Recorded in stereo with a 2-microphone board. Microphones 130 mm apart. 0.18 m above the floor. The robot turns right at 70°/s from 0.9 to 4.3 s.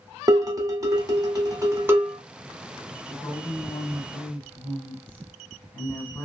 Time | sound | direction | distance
0.3 | dishes clattering | 25° right (ahead or behind) | 0.7 m
3.1 | a woman speaking | 15° left (ahead or behind) | 1.5 m